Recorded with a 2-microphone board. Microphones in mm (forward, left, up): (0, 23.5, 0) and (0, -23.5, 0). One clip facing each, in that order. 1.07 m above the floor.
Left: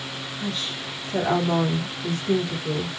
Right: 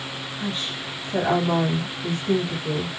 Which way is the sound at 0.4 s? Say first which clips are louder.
Right 1 dB; 20° right (ahead or behind).